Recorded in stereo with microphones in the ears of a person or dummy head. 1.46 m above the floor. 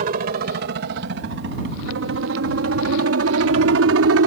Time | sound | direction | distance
0.0 | a helicopter | 45° right (ahead or behind) | ?